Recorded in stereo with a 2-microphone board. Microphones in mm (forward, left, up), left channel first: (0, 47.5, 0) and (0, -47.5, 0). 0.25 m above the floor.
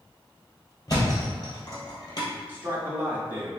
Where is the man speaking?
20° right (ahead or behind), 1.5 m.